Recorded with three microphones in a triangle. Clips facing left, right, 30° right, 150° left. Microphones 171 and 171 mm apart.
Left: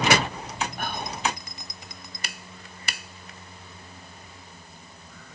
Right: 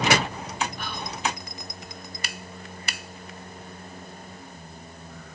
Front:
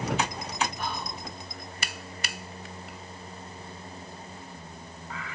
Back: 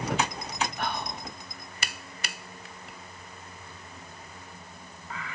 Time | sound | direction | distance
0.8 | whispering | 130° left | 2 m